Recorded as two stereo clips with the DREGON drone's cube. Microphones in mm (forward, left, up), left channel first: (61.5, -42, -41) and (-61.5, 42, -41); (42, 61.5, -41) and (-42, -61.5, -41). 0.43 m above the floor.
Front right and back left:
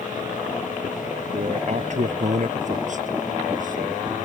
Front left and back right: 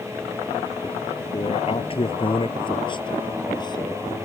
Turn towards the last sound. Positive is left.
turn(degrees=120)